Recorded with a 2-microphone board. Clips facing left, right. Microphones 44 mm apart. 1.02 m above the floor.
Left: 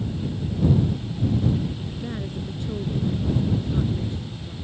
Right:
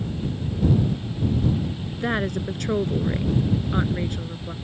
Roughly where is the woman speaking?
Right.